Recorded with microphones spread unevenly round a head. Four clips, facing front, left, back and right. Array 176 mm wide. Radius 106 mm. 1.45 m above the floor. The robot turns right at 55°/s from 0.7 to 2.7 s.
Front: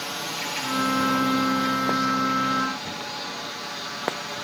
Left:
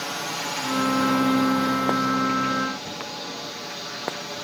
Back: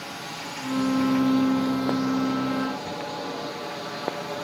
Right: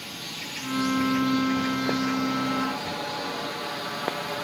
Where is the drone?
85° left; by 4.4 s 165° right.